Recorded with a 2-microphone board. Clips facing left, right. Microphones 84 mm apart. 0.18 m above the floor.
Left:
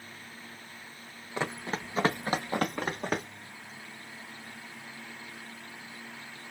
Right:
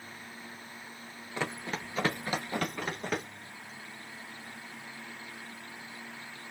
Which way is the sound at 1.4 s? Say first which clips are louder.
Left 2 dB; 20° left (ahead or behind).